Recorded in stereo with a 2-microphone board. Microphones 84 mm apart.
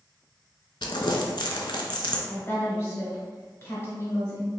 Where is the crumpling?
75° left (ahead or behind), 0.5 m.